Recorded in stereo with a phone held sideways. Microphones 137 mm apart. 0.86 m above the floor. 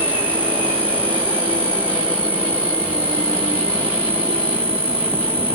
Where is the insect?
45° right (ahead or behind), 3 m.